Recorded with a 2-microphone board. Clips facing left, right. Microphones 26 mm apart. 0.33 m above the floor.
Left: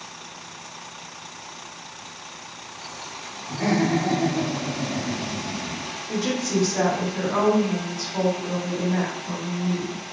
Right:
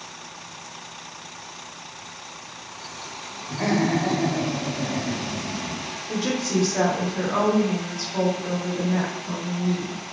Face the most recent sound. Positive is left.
turn(degrees=-10)  # may be behind; listen again after turning